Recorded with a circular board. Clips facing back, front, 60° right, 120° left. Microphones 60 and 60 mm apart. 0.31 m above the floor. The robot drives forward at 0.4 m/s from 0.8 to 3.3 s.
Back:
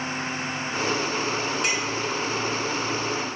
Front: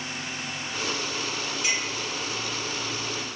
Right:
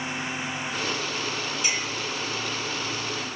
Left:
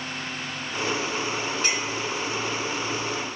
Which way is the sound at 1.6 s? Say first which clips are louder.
Back 3 dB, left 2 dB; 160° left.